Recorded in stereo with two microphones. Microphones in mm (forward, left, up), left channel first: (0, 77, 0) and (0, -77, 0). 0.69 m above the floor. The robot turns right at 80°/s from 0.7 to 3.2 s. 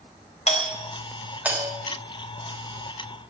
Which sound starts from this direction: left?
A doorbell, at 0.5 s.